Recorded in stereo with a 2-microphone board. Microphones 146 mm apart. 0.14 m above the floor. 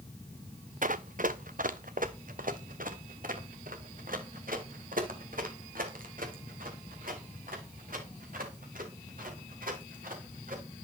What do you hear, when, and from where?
0.8 s running footsteps: 70° right (ahead or behind), 0.8 m; by 10.6 s 75° right (ahead or behind), 5.5 m